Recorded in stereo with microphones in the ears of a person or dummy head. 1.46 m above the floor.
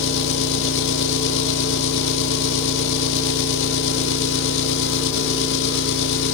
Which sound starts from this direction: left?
An engine running, at 0.0 s.